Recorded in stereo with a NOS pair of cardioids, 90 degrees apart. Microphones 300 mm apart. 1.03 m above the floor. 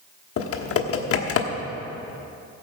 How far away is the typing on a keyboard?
About 1.2 m.